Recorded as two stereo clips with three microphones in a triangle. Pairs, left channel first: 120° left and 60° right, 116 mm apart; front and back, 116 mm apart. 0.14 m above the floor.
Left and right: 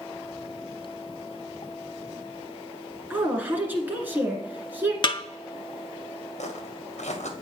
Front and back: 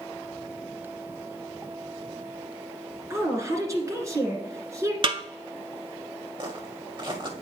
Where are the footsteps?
130° left, 1.5 m.